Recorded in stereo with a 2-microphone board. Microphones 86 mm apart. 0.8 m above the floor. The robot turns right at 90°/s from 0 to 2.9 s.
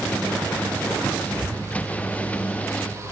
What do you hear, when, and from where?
1.3 s breathing: 60° right (ahead or behind), 1.8 m; by 2.5 s 40° left (ahead or behind), 1.8 m